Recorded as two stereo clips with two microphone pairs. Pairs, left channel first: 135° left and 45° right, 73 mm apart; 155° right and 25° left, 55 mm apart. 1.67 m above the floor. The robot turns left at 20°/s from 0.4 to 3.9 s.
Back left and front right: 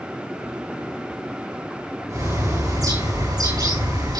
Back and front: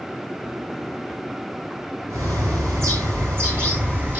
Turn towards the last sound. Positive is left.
turn(degrees=-35)